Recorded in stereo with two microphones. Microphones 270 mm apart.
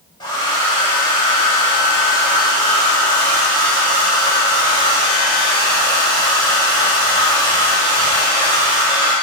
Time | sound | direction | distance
0.2 | a hair dryer | 15° left (ahead or behind) | 1.0 m